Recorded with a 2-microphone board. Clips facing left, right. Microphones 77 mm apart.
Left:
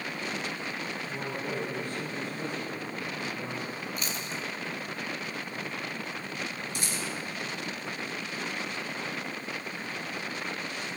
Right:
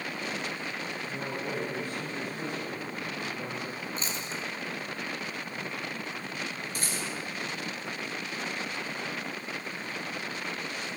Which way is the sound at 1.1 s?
15° right (ahead or behind).